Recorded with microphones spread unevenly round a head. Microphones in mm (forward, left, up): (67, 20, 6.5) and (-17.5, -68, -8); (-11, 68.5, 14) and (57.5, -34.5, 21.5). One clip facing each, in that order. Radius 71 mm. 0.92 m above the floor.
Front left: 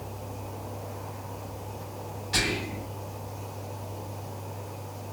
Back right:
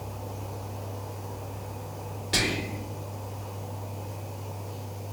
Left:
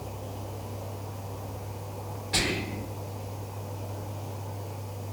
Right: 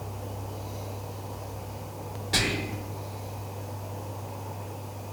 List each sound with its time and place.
2.3 s whispering: 110° right, 2 m